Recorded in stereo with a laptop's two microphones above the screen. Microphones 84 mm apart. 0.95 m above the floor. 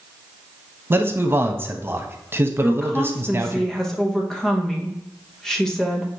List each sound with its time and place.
0.9 s a man speaking: 25° right (ahead or behind), 0.8 m
2.6 s a woman speaking: 5° left (ahead or behind), 0.7 m